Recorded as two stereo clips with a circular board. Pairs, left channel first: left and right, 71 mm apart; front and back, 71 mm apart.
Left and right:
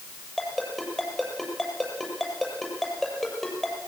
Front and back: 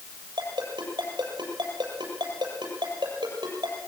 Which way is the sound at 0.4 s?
175° left.